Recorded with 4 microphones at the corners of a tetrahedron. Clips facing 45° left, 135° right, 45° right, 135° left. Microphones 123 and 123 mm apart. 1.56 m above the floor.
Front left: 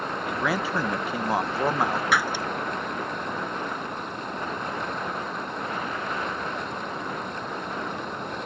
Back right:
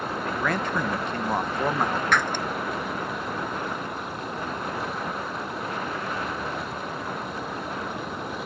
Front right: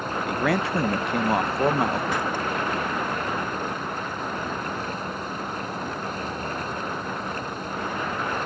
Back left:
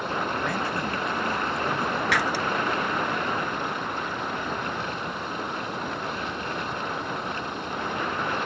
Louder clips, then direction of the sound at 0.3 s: Even, front right 4 dB; 35° right.